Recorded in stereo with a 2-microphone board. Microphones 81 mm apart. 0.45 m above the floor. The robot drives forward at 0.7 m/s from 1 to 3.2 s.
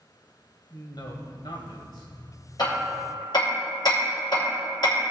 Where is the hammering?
60° left (ahead or behind), 4 m; by 5.1 s 55° left (ahead or behind), 4.5 m.